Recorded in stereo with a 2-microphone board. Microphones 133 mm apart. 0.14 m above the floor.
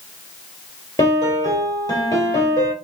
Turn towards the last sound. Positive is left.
turn(degrees=25)  # may be behind; listen again after turning